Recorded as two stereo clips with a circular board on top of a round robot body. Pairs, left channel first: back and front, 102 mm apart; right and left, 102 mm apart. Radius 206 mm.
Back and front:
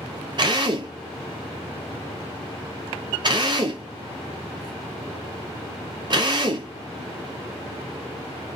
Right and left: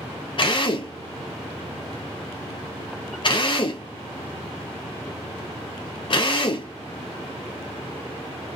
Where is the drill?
45° right, 0.9 m.